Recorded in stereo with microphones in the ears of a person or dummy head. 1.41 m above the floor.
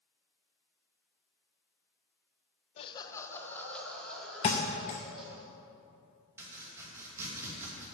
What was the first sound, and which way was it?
Laughter, 35° left (ahead or behind).